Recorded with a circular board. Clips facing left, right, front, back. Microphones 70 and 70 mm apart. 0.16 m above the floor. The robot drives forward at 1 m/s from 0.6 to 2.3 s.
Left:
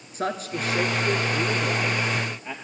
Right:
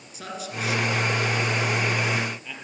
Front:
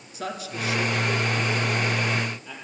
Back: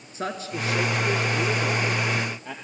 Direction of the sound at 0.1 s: 130° left.